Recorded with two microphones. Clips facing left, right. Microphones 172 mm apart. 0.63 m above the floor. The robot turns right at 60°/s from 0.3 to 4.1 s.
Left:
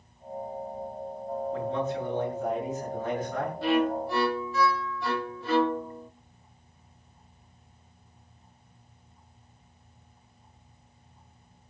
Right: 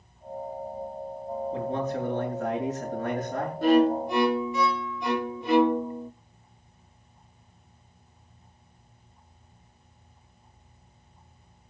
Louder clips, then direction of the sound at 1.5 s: Right 1 dB; 150° right.